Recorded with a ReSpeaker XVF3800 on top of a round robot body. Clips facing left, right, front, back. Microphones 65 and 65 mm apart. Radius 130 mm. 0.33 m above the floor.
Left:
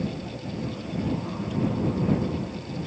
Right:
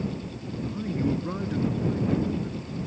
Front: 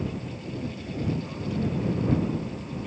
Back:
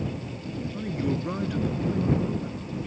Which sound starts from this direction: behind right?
A man speaking, at 0.7 s.